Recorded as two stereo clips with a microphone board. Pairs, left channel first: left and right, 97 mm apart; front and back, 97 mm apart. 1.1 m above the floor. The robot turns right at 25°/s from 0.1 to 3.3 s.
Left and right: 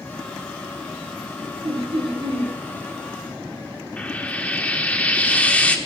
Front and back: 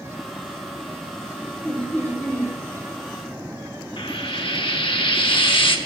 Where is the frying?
15° left, 1.1 m.